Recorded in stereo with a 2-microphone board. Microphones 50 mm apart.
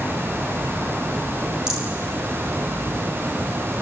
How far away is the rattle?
About 8 m.